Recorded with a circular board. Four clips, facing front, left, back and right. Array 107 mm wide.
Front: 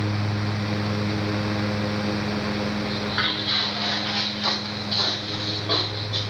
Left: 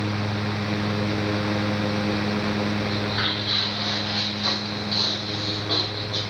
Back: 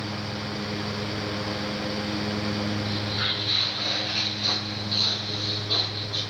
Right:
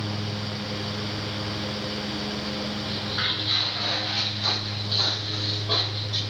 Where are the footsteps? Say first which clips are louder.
Left 5 dB, front 4 dB; 5° left, 3 m; by 6.2 s 30° right, 3 m.